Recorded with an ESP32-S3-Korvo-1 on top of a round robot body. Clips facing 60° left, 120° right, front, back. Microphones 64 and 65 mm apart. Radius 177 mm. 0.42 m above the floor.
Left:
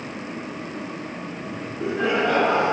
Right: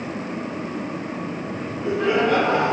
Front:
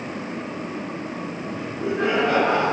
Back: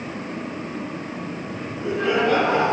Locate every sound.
1.5 s laughter: 60° left, 6.5 m